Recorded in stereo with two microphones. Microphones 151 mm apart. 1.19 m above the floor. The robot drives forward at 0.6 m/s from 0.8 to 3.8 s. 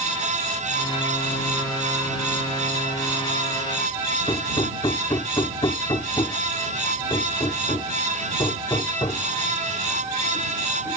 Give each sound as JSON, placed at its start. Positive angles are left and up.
{"t": 4.3, "sound": "hammering", "side_deg": 35}